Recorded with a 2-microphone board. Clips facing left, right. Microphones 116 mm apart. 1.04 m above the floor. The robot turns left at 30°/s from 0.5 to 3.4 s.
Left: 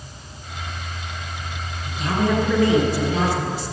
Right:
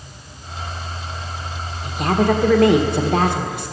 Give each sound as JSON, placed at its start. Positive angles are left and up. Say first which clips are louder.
{"t": 1.8, "sound": "a woman speaking", "louder": "right 4 dB", "azimuth_deg": -55, "distance_m": 1.2}